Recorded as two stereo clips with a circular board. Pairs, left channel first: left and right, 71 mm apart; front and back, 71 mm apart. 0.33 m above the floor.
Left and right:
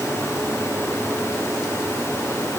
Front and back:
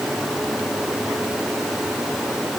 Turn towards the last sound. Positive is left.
No sound to turn to.